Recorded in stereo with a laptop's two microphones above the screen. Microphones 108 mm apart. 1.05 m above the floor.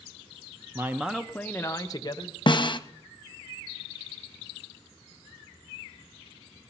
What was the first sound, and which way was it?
A man speaking, 25° right (ahead or behind).